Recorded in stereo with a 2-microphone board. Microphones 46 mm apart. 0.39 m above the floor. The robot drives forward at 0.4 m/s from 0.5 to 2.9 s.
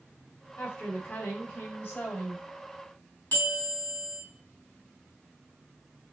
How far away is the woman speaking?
About 2 m.